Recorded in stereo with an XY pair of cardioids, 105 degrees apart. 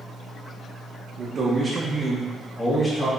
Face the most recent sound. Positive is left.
turn(degrees=40)